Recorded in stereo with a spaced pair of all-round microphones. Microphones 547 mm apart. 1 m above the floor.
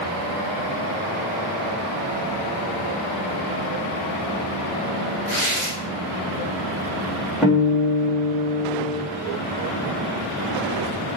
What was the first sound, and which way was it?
Tearing paper, 15° left (ahead or behind).